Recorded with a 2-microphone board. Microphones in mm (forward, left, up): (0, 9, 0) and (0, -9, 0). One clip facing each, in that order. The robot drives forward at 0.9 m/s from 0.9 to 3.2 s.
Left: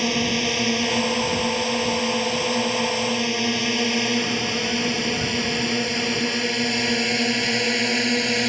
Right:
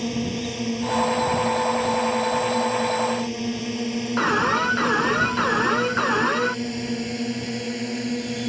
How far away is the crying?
No crying in this recording.